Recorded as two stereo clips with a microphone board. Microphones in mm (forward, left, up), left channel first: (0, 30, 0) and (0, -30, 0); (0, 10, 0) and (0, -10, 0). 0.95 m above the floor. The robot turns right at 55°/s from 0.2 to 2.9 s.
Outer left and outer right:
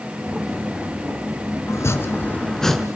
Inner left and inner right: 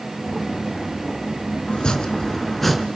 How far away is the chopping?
About 2 m.